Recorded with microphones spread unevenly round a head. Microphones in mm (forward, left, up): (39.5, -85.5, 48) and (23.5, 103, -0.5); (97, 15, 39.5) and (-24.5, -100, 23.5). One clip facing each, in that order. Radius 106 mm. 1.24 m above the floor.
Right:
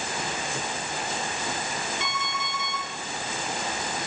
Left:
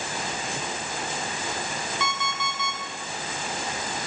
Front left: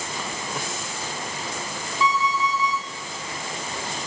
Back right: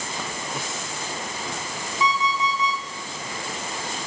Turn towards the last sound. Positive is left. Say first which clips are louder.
# left 2 dB, front left 1 dB
turn(degrees=145)